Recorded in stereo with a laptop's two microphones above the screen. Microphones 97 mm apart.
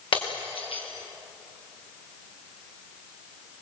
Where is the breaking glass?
75° left (ahead or behind), 5.5 m.